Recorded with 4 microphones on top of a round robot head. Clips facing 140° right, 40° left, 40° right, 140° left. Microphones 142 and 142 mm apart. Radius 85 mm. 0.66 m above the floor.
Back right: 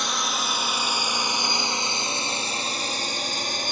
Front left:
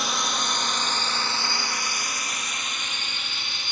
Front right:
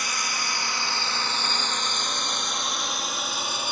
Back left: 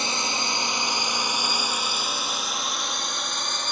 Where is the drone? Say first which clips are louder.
Even, back left 3 dB; 130° left; by 3.7 s 120° right.